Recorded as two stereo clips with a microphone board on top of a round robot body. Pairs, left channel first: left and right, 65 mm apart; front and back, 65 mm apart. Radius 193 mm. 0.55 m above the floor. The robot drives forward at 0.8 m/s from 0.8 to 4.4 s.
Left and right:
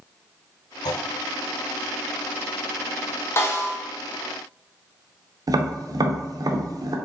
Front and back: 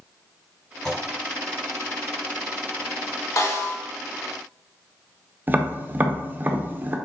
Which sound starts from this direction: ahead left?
A snare drum, at 3.4 s.